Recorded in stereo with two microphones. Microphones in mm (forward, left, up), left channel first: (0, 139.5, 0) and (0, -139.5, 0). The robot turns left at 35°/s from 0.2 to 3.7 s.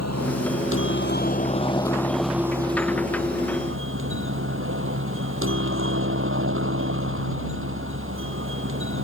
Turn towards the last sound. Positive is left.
turn(degrees=-50)